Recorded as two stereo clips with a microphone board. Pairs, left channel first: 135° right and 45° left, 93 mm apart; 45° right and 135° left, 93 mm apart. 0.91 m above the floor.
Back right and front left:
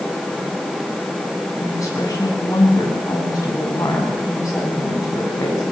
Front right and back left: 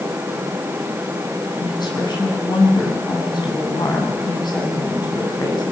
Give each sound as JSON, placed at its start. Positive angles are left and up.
{"t": 1.6, "sound": "a woman speaking", "azimuth_deg": -85, "distance_m": 8.0}